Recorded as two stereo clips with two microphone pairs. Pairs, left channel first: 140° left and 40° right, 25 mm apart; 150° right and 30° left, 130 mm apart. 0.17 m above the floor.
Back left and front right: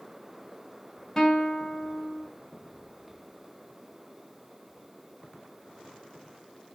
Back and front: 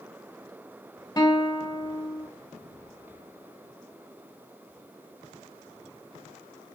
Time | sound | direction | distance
1.2 | a guitar | 155° right | 0.5 m